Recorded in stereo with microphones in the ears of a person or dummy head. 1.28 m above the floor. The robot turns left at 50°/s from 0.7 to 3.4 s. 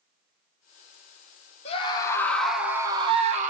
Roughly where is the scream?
Ahead left.